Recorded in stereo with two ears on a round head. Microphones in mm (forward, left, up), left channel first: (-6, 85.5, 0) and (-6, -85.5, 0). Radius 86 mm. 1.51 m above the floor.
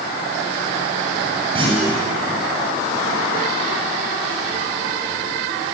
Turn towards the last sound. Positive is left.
turn(degrees=-30)  # may be behind; listen again after turning